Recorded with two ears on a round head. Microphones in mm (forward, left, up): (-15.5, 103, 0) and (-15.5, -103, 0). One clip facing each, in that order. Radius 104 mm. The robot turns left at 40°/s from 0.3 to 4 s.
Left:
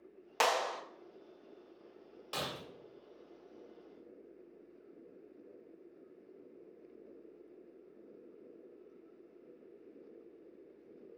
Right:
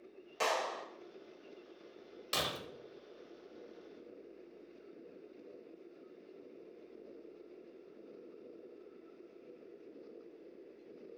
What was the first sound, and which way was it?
A clap, 75° left (ahead or behind).